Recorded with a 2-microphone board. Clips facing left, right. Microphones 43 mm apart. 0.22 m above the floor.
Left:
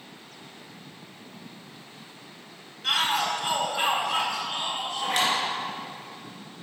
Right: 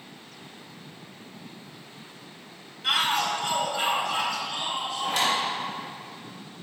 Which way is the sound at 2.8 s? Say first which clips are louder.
Even; 5° right (ahead or behind).